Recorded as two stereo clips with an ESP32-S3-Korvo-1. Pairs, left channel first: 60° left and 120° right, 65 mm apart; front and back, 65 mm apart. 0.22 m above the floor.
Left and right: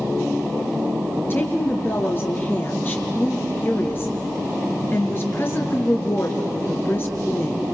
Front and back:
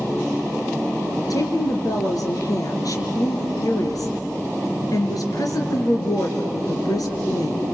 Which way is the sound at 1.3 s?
10° left.